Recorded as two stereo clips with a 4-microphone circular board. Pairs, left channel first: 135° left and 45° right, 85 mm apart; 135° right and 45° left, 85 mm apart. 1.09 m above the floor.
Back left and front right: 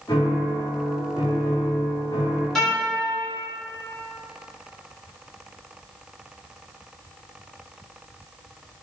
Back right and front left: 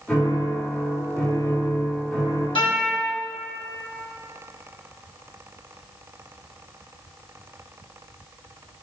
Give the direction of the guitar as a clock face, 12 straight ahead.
4 o'clock.